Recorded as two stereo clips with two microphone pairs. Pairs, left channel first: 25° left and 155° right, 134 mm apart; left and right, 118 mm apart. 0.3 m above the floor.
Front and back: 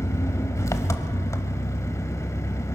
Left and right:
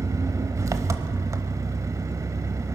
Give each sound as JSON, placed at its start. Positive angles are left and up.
{"t": 0.0, "sound": "an engine running", "azimuth_deg": -35, "distance_m": 0.8}